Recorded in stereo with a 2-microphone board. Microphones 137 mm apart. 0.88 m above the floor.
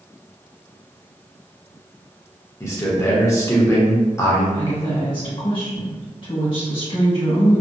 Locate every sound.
2.6 s a man speaking: 20° left (ahead or behind), 0.8 m
4.5 s a woman speaking: 40° left (ahead or behind), 1.5 m